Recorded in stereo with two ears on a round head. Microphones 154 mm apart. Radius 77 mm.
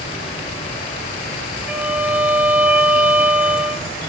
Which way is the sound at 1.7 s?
10° right (ahead or behind).